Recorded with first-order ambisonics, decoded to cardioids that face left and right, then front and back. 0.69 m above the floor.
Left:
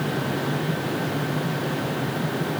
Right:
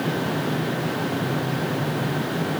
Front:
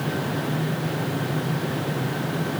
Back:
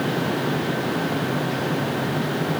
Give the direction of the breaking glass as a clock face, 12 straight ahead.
I don't hear breaking glass.